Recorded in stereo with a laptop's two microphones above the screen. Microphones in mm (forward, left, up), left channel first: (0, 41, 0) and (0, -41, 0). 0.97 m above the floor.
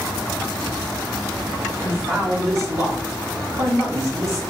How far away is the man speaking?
About 1.7 m.